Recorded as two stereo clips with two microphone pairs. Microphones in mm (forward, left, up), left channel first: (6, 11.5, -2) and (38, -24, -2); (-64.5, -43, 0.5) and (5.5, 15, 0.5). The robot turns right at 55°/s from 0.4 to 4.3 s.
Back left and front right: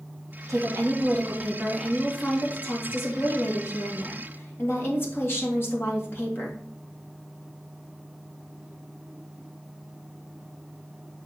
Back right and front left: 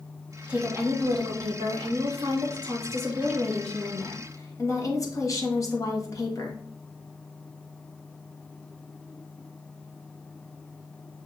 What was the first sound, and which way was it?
A woman speaking, 40° right.